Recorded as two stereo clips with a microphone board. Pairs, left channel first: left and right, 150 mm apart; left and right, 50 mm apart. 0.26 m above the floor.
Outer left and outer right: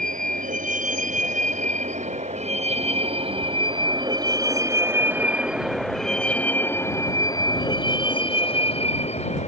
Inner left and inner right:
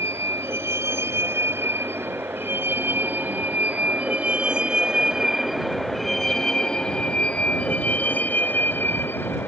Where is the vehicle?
60° right (ahead or behind); by 9.5 s 50° left (ahead or behind).